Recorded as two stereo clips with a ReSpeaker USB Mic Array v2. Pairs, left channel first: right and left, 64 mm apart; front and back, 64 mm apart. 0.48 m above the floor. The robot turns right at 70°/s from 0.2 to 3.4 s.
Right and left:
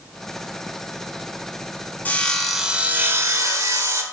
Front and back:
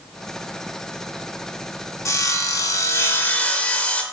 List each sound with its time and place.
2.0 s sawing: 30° right, 1.0 m; by 4.0 s 65° left, 1.0 m